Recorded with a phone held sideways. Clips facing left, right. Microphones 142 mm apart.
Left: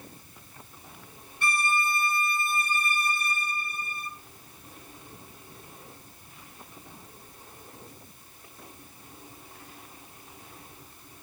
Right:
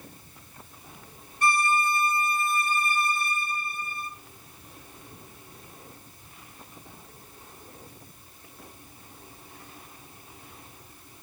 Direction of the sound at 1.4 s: 40° right (ahead or behind).